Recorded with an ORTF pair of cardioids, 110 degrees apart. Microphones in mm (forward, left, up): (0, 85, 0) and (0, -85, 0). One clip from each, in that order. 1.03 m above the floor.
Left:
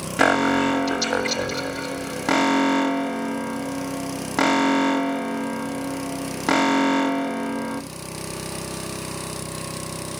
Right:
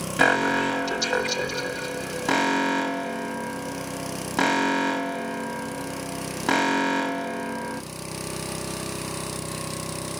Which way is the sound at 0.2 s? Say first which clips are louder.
Left 2 dB; 15° left.